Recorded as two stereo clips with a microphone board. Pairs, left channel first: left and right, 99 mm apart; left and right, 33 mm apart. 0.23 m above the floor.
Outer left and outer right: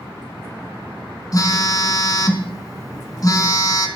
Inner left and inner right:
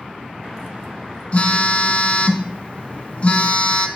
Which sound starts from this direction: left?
A phone buzzing, at 1.3 s.